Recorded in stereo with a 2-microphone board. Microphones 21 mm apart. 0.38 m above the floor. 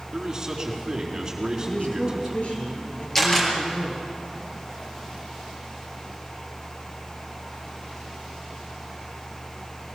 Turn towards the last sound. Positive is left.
turn(degrees=15)  # may be behind; listen again after turning